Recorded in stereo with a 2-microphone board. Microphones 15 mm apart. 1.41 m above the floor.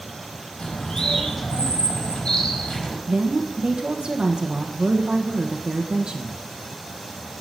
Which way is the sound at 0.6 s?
75° left (ahead or behind).